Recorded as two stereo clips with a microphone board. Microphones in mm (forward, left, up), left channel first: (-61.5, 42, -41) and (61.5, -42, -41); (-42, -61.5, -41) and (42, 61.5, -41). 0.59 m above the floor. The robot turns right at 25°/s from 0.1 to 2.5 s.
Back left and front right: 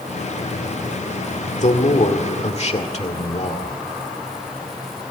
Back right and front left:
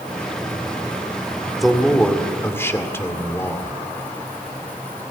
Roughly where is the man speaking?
Behind left.